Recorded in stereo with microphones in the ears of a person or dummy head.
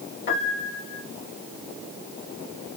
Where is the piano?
55° left (ahead or behind), 1.9 m.